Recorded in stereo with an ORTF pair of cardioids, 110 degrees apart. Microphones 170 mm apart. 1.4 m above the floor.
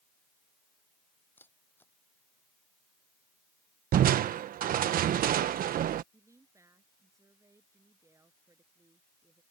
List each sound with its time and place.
1.4 s a camera shutter: 10° left
3.9 s crushing: 55° right
6.1 s a woman speaking: 15° right